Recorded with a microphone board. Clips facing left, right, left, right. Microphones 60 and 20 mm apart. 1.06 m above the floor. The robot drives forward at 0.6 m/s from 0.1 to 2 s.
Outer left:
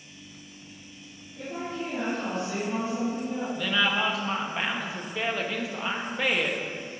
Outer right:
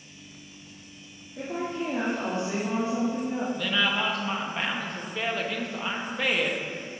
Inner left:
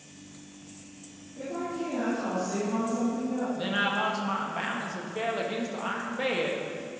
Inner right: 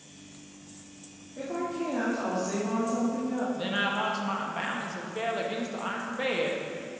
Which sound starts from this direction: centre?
A woman speaking, at 3.5 s.